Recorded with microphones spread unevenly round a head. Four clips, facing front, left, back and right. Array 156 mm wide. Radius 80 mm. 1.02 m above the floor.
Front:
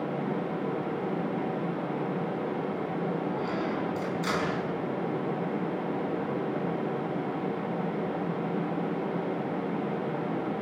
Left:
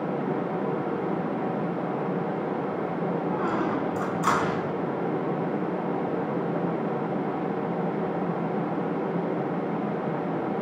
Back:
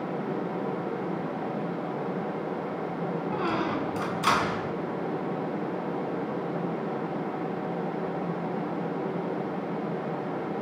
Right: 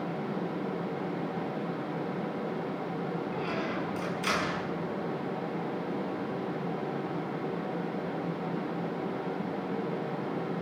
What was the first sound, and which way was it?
A squeak, 130° left.